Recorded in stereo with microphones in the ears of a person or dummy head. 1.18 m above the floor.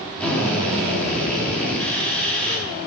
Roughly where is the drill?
Centre.